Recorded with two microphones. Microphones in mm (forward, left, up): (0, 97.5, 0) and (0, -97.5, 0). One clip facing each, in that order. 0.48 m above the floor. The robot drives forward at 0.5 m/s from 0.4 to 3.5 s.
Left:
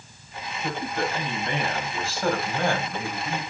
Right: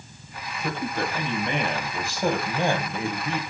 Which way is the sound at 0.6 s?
10° right (ahead or behind).